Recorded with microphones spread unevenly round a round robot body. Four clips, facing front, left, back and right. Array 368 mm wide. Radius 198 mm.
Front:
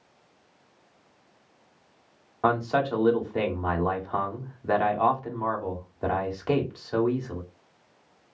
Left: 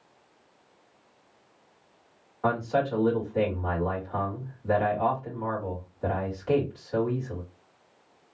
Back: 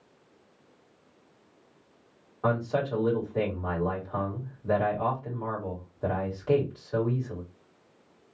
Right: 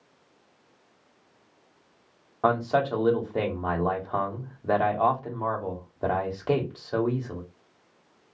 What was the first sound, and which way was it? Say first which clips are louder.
A man speaking: right 2 dB, front 3 dB; 40° right.